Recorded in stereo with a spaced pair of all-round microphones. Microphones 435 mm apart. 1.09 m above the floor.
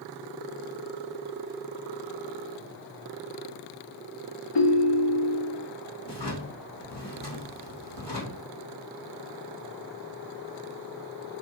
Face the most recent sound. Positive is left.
turn(degrees=70)  # may be behind; listen again after turning